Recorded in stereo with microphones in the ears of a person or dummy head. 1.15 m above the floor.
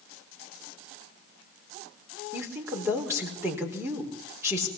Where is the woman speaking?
15° right (ahead or behind), 4 m.